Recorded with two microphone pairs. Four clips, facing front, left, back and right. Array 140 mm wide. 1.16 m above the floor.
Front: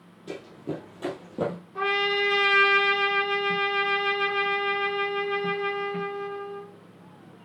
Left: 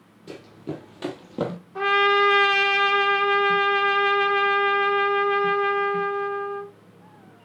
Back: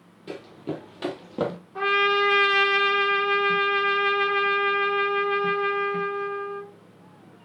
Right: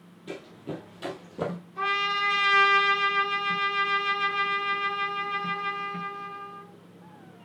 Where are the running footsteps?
175° right, 2.5 m; by 1.6 s 135° left, 2.5 m.